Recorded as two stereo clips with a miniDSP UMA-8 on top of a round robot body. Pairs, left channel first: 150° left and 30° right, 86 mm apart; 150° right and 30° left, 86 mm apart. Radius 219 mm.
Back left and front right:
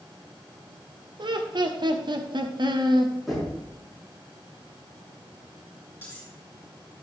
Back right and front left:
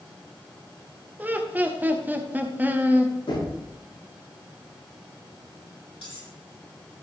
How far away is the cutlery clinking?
About 6.5 m.